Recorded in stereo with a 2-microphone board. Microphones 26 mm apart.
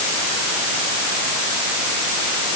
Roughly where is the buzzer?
I don't hear a buzzer.